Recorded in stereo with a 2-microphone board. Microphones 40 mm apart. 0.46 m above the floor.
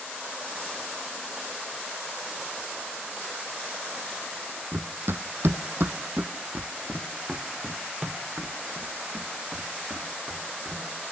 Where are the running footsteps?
55° right (ahead or behind), 1.0 m; by 10.8 s centre (ahead or behind), 3.5 m.